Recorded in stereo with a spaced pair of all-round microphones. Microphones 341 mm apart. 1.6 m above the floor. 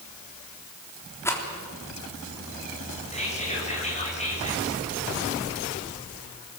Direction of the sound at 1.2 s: 5° left (ahead or behind).